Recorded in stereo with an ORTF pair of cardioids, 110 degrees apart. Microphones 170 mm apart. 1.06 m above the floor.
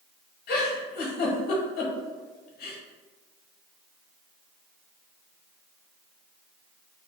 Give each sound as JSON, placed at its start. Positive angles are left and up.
{"t": 0.5, "sound": "a giggle", "azimuth_deg": 65, "distance_m": 0.9}